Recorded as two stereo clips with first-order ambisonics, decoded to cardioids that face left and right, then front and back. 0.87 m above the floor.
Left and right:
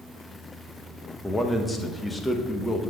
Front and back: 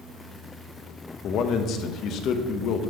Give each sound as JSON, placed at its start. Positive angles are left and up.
{"t": 1.2, "sound": "a man speaking", "azimuth_deg": 10, "distance_m": 0.8}